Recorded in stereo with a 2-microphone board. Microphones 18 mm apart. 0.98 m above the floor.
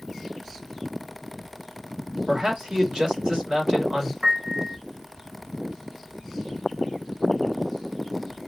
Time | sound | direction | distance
2.3 | a man speaking | 55° right (ahead or behind) | 1.7 m
4.2 | a piano | 40° right (ahead or behind) | 0.6 m